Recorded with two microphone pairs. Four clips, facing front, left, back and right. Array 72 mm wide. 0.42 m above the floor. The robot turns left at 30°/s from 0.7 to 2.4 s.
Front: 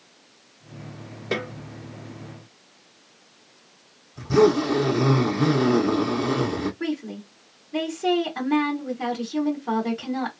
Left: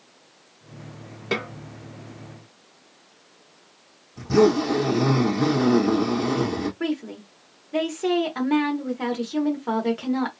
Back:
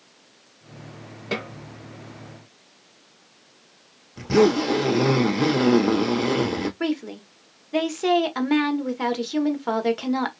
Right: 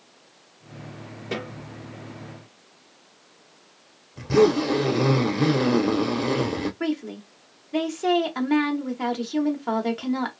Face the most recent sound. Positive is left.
turn(degrees=180)